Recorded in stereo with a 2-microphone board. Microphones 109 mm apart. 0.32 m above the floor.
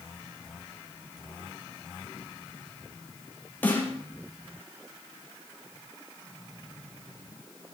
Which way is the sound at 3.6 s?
15° left (ahead or behind).